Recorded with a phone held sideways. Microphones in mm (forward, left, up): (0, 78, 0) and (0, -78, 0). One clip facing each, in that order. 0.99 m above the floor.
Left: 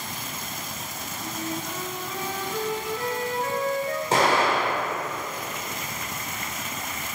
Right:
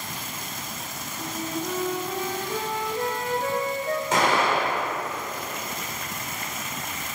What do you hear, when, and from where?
1.2 s a flute: 40° right (ahead or behind), 0.8 m
4.1 s an explosion: 35° left (ahead or behind), 2.5 m